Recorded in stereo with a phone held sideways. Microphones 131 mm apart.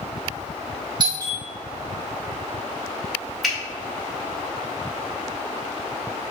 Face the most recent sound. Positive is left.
turn(degrees=0)  # may be behind; listen again after turning